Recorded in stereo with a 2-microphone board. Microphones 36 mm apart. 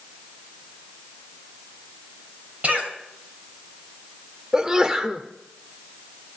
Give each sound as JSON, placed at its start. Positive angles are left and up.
{"t": 2.6, "sound": "a cough", "side_deg": -40, "distance_m": 3.0}
{"t": 4.5, "sound": "a sneeze", "side_deg": -20, "distance_m": 0.9}